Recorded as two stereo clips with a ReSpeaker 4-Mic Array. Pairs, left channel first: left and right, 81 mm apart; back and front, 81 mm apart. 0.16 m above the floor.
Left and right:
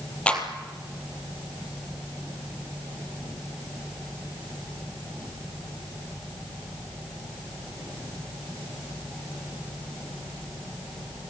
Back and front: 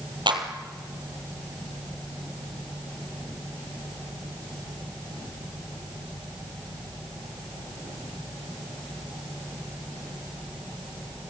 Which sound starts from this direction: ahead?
A clap, at 0.3 s.